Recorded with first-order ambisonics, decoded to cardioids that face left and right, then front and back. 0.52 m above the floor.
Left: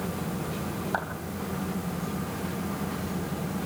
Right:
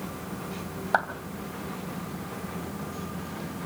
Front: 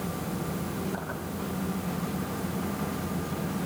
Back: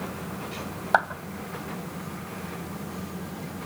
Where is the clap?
150° right, 3 m.